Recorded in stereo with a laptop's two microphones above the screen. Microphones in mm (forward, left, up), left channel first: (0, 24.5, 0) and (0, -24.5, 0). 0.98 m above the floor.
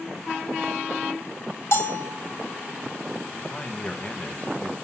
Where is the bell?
60° left (ahead or behind), 2 m.